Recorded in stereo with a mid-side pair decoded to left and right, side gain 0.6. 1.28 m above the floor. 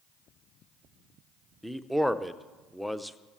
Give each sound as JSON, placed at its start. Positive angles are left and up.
{"t": 1.6, "sound": "a man speaking", "azimuth_deg": 0, "distance_m": 0.7}